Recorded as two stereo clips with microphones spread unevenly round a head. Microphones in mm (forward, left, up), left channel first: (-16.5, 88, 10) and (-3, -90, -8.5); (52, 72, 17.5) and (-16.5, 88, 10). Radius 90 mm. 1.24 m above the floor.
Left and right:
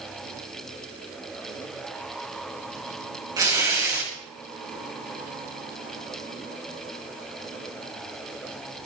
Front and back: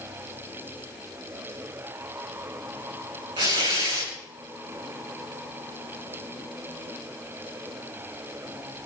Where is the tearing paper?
155° right, 8.5 m.